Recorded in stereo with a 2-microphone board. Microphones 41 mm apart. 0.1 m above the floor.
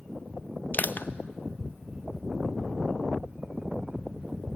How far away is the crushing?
About 0.7 m.